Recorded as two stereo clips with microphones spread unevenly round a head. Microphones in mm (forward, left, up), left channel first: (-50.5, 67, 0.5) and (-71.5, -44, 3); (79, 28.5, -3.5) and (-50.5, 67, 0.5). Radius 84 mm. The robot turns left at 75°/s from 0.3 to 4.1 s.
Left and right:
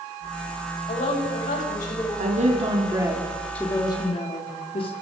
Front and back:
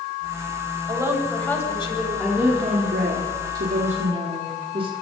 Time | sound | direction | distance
0.9 | a woman speaking | 110° left | 9.5 m
2.2 | a woman speaking | 100° right | 3.5 m